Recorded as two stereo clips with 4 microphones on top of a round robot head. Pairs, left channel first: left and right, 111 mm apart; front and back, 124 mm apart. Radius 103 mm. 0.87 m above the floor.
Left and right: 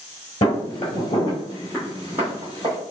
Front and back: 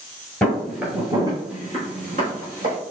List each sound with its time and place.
0.4 s footsteps: 80° left, 1.1 m; by 2.8 s 165° right, 1.9 m